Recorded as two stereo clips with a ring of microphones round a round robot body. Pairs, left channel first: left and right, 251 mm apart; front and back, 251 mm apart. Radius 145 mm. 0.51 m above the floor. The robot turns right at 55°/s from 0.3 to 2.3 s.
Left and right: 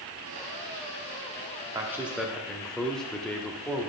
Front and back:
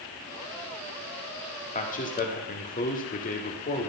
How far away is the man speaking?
About 1.1 m.